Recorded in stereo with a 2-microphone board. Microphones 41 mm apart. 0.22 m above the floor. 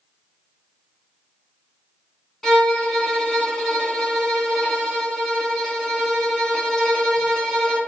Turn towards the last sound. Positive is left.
turn(degrees=10)  # may be behind; listen again after turning